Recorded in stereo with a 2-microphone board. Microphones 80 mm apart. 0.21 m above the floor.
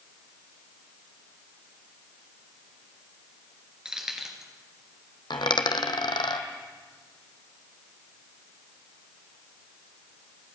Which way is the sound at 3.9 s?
10° right (ahead or behind).